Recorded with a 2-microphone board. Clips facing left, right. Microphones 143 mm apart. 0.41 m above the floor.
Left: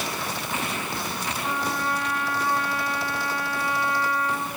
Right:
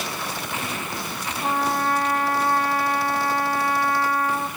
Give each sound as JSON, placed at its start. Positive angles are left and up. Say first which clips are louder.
{"t": 1.4, "sound": "a trumpet", "louder": "right 6 dB", "side_deg": -45, "distance_m": 2.5}